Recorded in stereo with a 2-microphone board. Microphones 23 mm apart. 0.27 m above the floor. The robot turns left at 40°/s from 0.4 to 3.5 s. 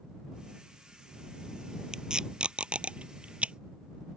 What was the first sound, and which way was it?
Tape being pulled, 25° right (ahead or behind).